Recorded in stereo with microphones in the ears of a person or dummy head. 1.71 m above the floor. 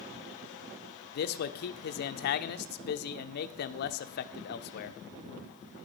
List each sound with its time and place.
1.1 s a man speaking: 50° left (ahead or behind), 0.6 m